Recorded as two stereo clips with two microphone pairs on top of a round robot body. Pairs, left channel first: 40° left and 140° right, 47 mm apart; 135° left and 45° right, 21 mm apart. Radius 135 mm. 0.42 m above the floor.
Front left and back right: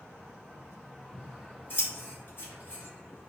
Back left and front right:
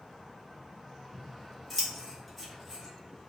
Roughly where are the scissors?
Ahead left.